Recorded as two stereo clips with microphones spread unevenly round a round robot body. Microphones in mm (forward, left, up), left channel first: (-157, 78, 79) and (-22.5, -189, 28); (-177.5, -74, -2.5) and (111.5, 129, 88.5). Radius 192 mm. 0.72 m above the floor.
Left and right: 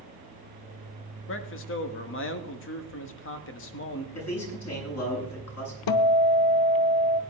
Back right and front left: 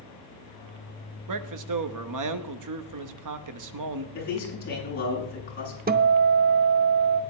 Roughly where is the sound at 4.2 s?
Behind left.